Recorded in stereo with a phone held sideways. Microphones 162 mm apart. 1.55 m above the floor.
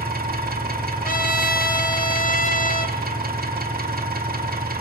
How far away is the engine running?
About 3.5 m.